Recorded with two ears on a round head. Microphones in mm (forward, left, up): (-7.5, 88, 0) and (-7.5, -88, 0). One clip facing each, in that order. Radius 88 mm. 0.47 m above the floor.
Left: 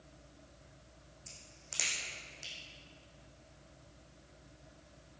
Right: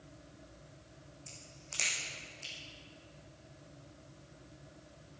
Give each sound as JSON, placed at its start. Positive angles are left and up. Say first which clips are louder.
{"t": 1.3, "sound": "a crack", "louder": "right 3 dB", "side_deg": 10, "distance_m": 5.0}